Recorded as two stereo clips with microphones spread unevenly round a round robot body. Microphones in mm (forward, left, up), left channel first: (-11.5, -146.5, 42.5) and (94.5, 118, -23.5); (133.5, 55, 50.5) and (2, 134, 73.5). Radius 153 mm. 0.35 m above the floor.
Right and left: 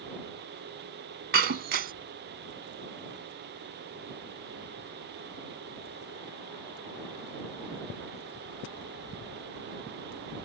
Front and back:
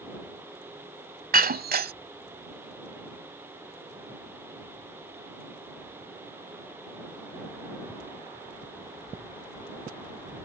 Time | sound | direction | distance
1.3 | breaking glass | 125° left | ?